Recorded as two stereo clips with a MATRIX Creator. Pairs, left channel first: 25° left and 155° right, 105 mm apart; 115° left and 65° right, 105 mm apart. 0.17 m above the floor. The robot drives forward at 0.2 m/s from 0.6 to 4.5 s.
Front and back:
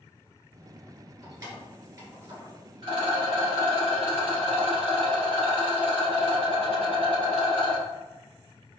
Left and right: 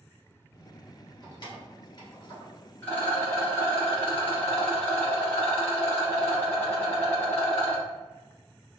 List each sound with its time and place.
1.2 s keys jangling: 155° left, 1.9 m
2.8 s a rattle: 175° right, 2.0 m